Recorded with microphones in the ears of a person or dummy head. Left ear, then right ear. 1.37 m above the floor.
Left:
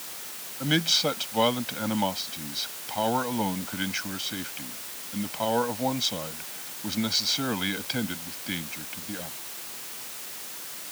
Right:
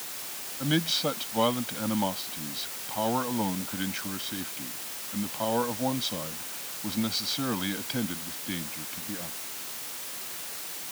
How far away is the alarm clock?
No alarm clock in this recording.